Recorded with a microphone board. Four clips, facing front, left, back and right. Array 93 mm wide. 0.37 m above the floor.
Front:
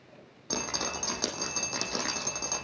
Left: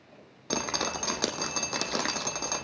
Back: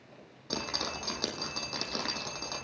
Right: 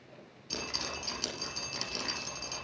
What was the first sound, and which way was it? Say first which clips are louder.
Dripping: left 9 dB, front 2 dB; 80° left.